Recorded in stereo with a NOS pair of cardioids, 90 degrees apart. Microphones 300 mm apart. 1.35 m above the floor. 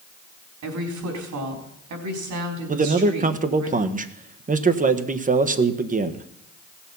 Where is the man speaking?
25° right, 1.3 m.